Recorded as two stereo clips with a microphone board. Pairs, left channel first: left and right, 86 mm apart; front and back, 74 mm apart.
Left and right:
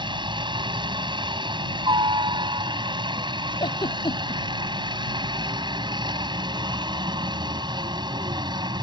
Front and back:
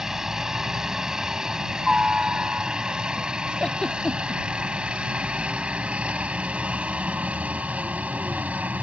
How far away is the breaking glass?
I don't hear breaking glass.